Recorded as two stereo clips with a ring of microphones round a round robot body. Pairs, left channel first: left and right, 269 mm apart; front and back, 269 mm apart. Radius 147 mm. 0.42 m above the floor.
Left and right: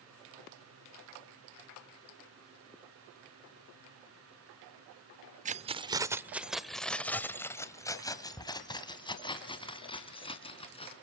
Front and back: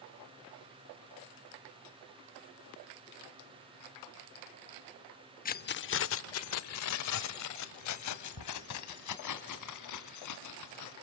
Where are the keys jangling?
40° right, 0.7 m; by 10.9 s 20° left, 3.5 m.